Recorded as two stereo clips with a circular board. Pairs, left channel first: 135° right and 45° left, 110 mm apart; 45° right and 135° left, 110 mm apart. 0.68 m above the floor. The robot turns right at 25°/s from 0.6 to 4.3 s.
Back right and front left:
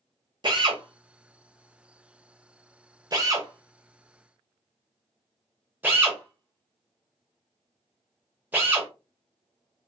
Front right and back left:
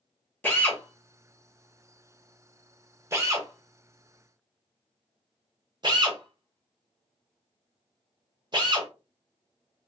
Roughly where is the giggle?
I don't hear a giggle.